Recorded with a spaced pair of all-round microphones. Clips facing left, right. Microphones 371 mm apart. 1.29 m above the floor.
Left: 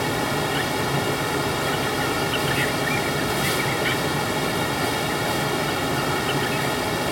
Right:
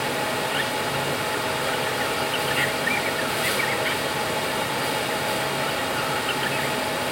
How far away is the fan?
About 1.3 m.